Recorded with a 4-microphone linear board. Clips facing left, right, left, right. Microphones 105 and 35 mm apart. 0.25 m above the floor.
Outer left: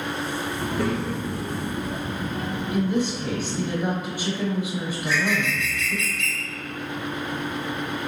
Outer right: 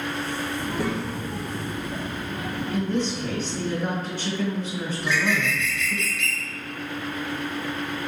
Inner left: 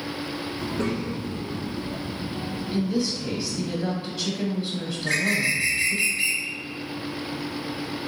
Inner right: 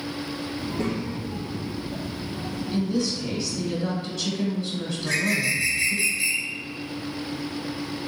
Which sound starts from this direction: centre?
A woman speaking, at 2.7 s.